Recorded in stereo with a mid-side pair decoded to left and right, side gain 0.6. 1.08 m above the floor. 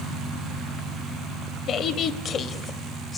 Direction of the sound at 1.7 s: 50° left.